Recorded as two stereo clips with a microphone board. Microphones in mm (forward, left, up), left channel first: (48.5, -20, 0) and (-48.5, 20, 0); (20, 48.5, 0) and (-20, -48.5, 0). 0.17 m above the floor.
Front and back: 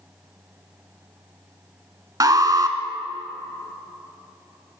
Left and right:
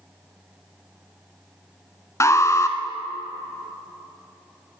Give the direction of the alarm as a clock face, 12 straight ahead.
8 o'clock.